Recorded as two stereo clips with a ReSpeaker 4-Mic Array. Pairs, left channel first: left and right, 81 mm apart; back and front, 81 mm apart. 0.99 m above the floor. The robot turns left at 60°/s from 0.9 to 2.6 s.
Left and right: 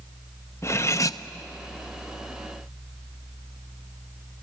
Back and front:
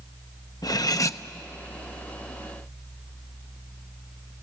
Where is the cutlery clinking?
140° left, 0.5 m; by 1.2 s 125° left, 0.5 m.